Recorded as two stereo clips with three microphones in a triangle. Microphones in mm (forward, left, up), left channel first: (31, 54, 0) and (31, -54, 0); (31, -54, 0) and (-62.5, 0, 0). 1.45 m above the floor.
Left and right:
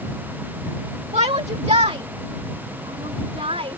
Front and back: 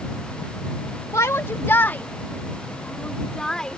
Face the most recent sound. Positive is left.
turn(degrees=-115)